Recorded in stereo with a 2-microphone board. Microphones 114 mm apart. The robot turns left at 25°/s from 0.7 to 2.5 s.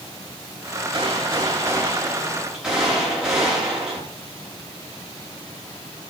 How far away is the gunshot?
About 8 m.